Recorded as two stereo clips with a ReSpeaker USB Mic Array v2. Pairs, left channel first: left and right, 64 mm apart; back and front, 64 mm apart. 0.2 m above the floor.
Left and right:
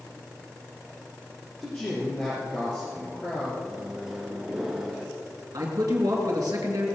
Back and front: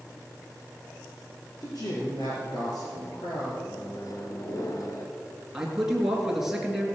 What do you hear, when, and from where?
1.6 s a man speaking: 165° left, 3.5 m
3.6 s a microwave: 170° right, 1.9 m
5.5 s a man speaking: 85° right, 3 m